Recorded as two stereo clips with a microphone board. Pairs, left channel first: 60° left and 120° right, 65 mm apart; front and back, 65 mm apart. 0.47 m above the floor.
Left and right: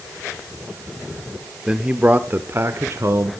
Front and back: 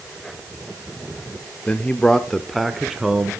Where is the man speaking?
50° right, 0.8 m; by 3.3 s 105° right, 1.3 m.